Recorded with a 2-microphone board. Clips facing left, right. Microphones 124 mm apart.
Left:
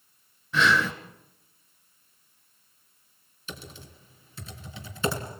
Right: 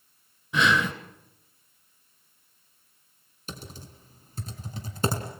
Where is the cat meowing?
I don't hear a cat meowing.